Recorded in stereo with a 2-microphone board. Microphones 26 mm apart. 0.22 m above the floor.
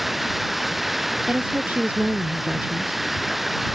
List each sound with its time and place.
0.0 s running water: 10° right (ahead or behind)
1.3 s a woman speaking: 70° right (ahead or behind)